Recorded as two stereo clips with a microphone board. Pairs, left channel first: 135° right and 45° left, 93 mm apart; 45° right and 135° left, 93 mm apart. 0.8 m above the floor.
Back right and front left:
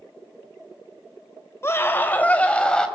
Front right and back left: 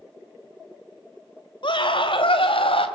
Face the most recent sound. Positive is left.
turn(degrees=-55)